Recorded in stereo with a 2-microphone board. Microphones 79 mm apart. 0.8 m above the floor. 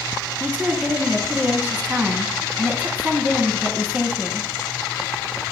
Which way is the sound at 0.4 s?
20° right (ahead or behind).